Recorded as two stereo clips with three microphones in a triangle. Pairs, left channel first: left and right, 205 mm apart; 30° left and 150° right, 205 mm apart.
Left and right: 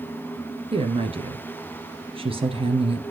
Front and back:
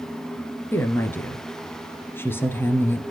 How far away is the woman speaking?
About 1.9 m.